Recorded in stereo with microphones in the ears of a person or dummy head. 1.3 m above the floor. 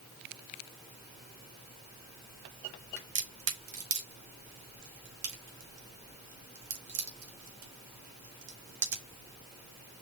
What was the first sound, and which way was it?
A crack, 75° right (ahead or behind).